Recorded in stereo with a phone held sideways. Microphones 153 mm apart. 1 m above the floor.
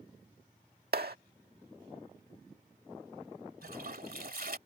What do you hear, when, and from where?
0.9 s a clap: 85° right
3.6 s a toilet flushing: 70° right (ahead or behind)